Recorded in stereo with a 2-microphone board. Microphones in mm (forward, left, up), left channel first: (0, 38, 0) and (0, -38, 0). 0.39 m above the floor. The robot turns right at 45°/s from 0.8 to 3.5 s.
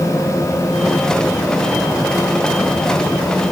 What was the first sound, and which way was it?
Only background noise.